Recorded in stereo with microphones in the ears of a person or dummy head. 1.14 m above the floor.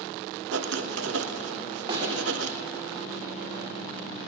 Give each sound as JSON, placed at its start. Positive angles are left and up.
{"t": 0.5, "sound": "writing", "side_deg": -70, "distance_m": 0.9}
{"t": 1.9, "sound": "a snare drum", "side_deg": -30, "distance_m": 1.8}